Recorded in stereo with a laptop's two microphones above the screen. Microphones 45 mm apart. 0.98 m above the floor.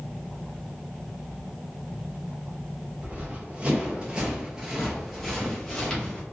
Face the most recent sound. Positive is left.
turn(degrees=25)  # may be behind; listen again after turning